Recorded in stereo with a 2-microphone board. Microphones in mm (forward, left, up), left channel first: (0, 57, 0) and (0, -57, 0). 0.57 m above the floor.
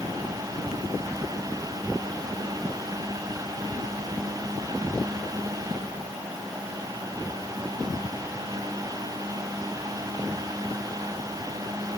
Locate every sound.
Only background noise.